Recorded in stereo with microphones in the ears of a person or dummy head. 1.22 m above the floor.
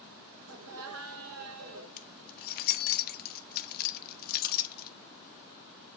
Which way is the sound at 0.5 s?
70° right (ahead or behind).